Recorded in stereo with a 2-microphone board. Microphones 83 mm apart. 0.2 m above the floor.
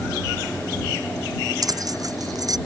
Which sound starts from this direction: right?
Keys jangling, at 1.6 s.